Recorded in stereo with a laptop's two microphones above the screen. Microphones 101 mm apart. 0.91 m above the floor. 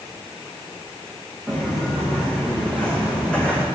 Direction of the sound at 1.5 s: 15° left (ahead or behind).